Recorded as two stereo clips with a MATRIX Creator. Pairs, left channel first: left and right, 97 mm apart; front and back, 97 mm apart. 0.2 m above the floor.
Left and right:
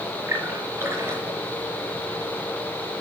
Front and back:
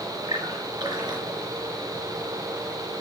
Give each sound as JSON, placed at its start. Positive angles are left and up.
{"t": 0.3, "sound": "a splash", "azimuth_deg": -150, "distance_m": 3.0}